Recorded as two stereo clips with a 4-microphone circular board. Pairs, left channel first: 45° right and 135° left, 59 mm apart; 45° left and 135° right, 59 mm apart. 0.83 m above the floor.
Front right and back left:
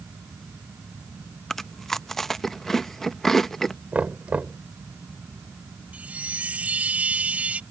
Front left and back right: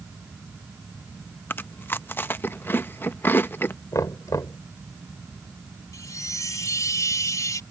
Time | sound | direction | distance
1.5 | chewing | 35° left | ?
3.9 | knocking | 65° left | ?
5.9 | a chime | 65° left | ?